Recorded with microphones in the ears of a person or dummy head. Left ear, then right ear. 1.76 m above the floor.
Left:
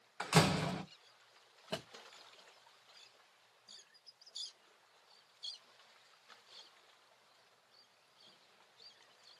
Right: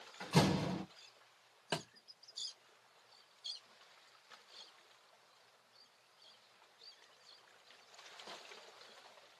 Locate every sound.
0.2 s a door slam: 50° left (ahead or behind), 1.0 m
1.7 s a thud: 25° right (ahead or behind), 1.2 m